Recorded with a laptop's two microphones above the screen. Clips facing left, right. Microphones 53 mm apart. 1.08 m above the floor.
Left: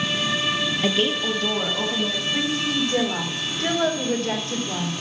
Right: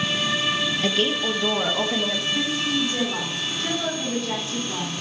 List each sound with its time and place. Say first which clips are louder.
0.8 s a woman speaking: left 1 dB; 15° left (ahead or behind), 0.8 m; by 2.2 s 35° right (ahead or behind), 1.9 m
2.3 s a woman speaking: left 2 dB; 55° left (ahead or behind), 4 m